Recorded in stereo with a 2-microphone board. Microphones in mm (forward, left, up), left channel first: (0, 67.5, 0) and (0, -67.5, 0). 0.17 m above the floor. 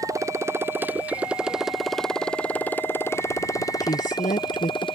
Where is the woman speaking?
70° left (ahead or behind).